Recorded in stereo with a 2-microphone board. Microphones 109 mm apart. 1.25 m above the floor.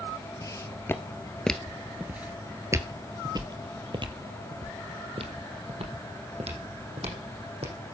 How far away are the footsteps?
About 1.5 m.